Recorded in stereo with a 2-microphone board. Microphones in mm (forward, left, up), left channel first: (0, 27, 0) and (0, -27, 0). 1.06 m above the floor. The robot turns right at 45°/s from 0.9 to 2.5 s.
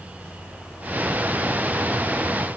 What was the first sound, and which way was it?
Only background noise.